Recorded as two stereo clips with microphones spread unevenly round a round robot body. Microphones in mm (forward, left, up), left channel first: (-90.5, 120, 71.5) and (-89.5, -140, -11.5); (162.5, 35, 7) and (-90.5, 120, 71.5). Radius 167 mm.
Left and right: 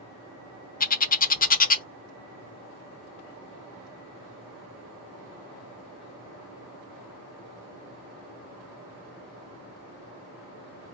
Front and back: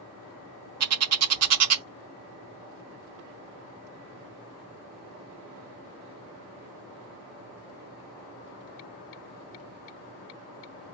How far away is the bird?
About 0.8 m.